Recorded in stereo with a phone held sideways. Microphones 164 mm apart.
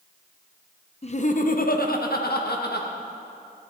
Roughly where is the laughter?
Left.